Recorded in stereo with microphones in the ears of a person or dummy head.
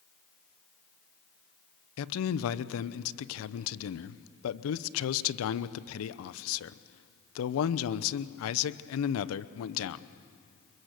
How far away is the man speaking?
About 0.8 m.